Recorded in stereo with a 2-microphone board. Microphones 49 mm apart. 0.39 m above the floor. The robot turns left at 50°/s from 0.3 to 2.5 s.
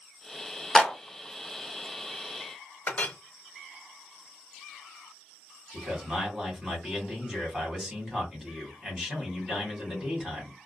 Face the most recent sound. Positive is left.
turn(degrees=-15)  # may be behind; listen again after turning